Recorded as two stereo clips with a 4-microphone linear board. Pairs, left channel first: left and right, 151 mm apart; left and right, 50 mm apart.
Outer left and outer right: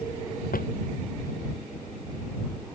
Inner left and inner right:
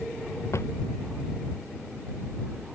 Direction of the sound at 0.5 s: 70° left (ahead or behind).